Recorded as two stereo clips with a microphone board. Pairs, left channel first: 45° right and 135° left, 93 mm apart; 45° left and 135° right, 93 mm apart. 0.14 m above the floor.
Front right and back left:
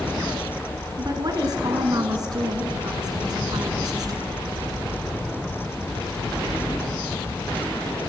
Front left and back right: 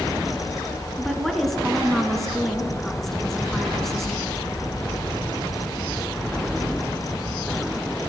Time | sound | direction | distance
1.0 | a woman speaking | 130° left | 1.7 m